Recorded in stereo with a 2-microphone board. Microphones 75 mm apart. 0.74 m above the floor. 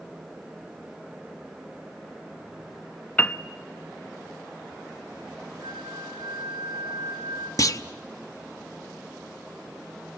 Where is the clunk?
45° left (ahead or behind), 0.6 m.